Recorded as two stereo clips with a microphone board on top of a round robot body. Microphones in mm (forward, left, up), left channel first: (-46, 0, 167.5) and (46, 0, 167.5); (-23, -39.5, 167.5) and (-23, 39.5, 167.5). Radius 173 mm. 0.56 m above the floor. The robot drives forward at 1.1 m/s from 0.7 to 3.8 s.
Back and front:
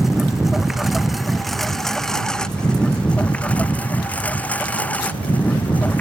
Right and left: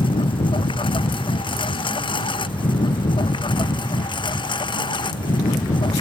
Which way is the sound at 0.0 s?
90° right.